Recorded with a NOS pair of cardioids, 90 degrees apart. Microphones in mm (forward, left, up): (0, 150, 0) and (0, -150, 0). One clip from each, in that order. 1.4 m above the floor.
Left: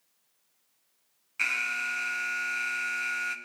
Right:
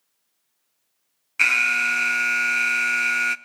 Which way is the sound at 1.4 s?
40° right.